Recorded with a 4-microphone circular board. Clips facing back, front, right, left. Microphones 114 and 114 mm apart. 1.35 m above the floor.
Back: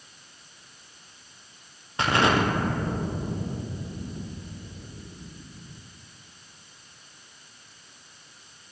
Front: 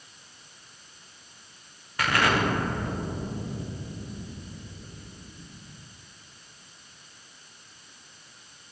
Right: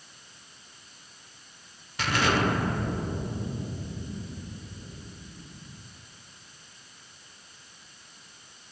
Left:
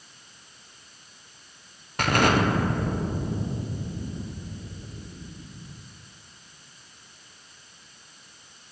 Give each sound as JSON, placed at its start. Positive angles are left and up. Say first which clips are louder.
{"t": 2.0, "sound": "an explosion", "louder": "back 2 dB, left 4 dB", "azimuth_deg": 120, "distance_m": 0.9}